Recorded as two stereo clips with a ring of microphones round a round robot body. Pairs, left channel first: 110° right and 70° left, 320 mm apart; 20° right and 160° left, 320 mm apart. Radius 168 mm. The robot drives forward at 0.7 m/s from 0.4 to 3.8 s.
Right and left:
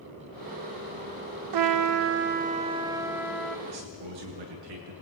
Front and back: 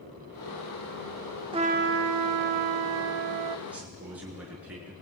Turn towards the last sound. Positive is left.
turn(degrees=70)